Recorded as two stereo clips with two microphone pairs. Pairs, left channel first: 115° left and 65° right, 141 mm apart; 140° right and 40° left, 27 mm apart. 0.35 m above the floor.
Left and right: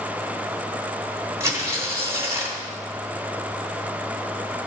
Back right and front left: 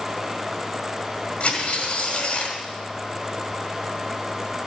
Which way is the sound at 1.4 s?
130° right.